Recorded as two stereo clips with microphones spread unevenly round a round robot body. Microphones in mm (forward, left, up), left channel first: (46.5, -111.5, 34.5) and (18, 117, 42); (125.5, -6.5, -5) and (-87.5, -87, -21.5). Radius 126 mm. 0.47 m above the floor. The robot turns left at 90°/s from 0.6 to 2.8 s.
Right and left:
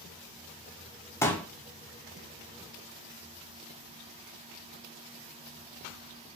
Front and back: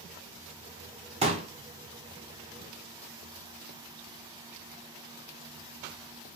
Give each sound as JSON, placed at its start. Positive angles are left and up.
{"t": 1.2, "sound": "a pop", "azimuth_deg": -145, "distance_m": 0.8}